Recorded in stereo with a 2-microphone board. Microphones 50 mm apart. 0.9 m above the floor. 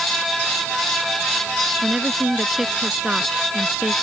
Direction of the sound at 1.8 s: 15° right (ahead or behind).